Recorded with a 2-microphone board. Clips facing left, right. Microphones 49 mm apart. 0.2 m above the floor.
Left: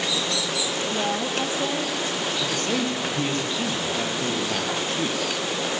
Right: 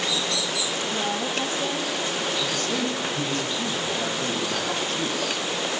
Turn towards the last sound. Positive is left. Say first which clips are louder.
# left 1 dB
turn(degrees=40)  # may be behind; listen again after turning